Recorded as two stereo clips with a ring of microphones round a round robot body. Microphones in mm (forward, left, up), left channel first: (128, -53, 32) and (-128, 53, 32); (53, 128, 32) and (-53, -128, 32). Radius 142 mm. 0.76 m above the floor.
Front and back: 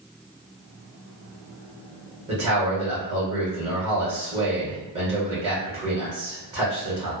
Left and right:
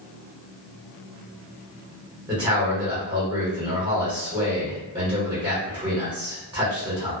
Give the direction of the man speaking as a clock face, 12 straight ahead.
6 o'clock.